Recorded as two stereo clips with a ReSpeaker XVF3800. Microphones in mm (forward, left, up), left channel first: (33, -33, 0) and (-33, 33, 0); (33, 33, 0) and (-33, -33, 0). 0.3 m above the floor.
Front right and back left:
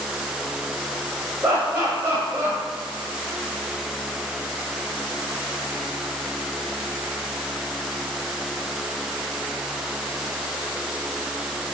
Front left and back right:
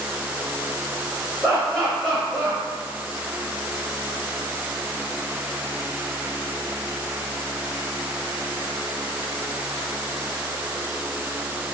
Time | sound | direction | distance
1.4 | laughter | 130° left | 1.2 m